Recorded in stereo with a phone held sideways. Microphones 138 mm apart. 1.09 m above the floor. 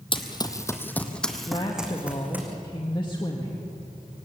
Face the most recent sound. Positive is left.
turn(degrees=35)  # may be behind; listen again after turning